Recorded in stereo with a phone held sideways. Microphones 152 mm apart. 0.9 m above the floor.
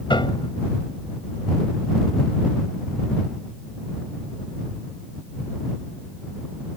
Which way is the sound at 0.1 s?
35° left (ahead or behind).